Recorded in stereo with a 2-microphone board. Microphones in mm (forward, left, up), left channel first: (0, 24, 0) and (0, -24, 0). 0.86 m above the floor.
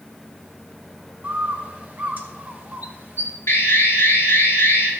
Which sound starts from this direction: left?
An alarm, at 3.5 s.